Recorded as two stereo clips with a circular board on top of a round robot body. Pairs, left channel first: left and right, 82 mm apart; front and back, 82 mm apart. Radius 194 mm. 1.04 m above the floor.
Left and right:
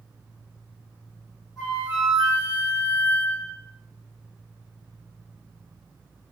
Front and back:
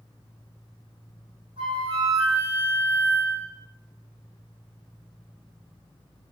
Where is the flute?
170° left, 1.0 m.